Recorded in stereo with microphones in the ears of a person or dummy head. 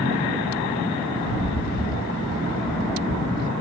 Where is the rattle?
50° left (ahead or behind), 2.5 m.